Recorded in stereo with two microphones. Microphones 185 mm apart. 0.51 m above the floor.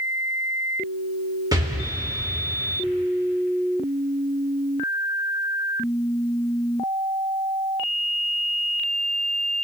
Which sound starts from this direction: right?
An explosion, at 1.5 s.